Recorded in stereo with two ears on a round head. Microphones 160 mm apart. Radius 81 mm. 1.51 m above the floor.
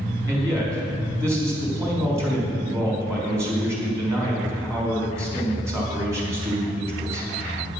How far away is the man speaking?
About 4 m.